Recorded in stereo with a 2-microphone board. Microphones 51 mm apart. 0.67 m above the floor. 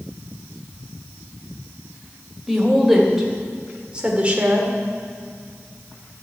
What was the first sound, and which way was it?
A woman speaking, centre (ahead or behind).